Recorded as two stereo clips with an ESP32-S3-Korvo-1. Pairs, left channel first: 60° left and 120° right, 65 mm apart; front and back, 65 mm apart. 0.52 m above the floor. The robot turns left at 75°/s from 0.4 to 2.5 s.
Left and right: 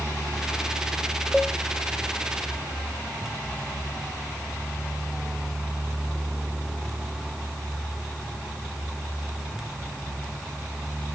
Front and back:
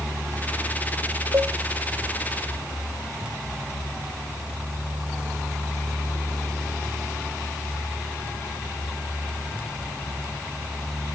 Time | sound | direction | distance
1.3 | a cowbell | 150° left | 0.7 m